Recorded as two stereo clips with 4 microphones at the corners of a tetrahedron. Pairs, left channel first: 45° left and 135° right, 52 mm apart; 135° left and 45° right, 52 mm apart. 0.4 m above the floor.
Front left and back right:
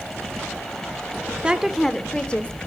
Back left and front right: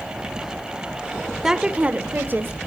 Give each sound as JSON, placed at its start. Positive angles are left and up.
{"t": 1.4, "sound": "a woman speaking", "azimuth_deg": -105, "distance_m": 0.8}